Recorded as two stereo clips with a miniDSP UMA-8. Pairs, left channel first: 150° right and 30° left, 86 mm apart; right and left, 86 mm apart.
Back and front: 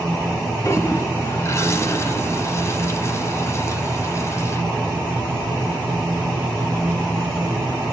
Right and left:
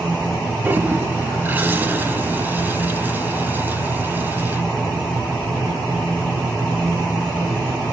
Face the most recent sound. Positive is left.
turn(degrees=155)